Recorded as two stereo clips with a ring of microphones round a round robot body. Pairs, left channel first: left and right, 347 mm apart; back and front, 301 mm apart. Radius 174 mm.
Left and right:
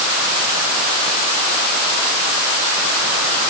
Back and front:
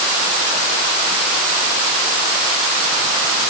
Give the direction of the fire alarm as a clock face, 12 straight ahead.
I don't hear a fire alarm.